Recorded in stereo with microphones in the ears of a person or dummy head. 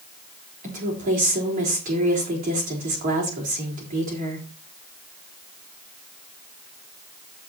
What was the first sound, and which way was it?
A woman speaking, 45° right (ahead or behind).